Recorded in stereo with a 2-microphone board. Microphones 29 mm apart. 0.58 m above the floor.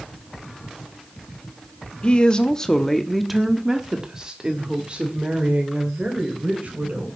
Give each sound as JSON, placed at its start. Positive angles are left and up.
{"t": 2.0, "sound": "a woman speaking", "side_deg": 35, "distance_m": 1.2}